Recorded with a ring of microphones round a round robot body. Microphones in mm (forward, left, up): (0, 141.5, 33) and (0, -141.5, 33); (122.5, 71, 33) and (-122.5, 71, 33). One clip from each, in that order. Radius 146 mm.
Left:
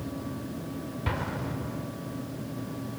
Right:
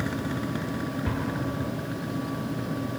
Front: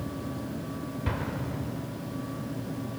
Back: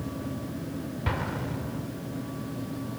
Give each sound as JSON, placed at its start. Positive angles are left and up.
{"t": 1.1, "sound": "an explosion", "azimuth_deg": 125, "distance_m": 1.4}